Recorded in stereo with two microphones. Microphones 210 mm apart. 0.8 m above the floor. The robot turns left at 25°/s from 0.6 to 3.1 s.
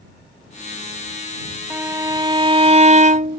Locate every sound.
1.7 s a violin: 10° right; by 3.4 s 45° right